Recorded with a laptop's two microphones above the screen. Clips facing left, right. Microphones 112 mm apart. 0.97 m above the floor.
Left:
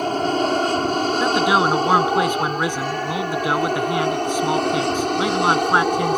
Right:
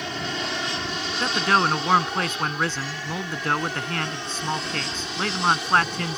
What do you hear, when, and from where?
0.0 s an aircraft: 45° left (ahead or behind); by 6.2 s 55° left (ahead or behind)
1.2 s a man speaking: 10° left (ahead or behind)